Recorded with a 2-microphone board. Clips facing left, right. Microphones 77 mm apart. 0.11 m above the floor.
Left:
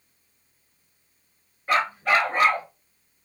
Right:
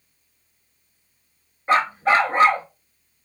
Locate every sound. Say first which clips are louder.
1.7 s a dog barking: right 4 dB; 30° right (ahead or behind), 0.6 m